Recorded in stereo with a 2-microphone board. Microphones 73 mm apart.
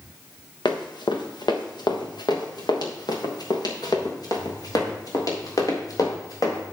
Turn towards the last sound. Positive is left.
turn(degrees=50)  # may be behind; listen again after turning